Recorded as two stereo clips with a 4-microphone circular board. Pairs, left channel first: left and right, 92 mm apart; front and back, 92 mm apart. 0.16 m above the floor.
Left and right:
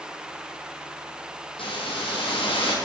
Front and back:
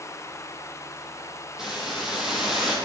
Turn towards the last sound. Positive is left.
turn(degrees=95)